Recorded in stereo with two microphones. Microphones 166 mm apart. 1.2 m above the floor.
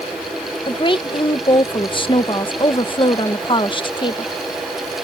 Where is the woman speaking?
30° left (ahead or behind).